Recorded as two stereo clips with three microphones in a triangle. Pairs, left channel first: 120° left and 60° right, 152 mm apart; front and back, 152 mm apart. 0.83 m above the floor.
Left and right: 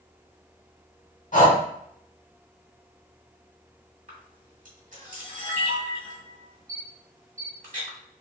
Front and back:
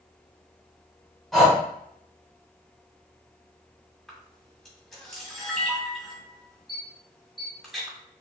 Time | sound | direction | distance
1.3 | breathing | 90° left | 1.1 m
4.1 | a camera shutter | 90° right | 1.4 m